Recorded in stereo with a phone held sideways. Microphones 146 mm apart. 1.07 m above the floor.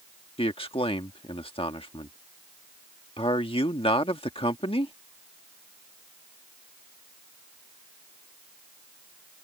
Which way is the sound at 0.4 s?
40° left (ahead or behind).